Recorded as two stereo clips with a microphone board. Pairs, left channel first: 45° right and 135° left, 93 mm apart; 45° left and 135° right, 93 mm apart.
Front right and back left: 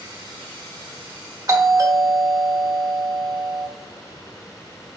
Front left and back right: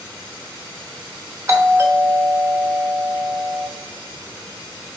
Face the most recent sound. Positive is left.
turn(degrees=175)